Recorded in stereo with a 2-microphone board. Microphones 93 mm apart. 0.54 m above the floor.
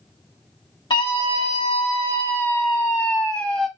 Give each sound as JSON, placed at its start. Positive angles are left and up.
{"t": 0.9, "sound": "a scream", "side_deg": 65, "distance_m": 1.9}